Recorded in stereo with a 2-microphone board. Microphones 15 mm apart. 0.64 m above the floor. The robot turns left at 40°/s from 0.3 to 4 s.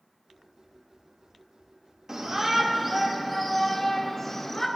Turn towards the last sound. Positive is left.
turn(degrees=155)